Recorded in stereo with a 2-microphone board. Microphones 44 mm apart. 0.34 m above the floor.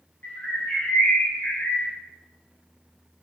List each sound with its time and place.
0.2 s a bird: 40° left (ahead or behind), 1.3 m